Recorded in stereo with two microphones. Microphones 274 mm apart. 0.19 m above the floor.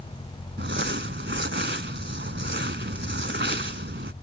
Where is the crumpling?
45° right (ahead or behind).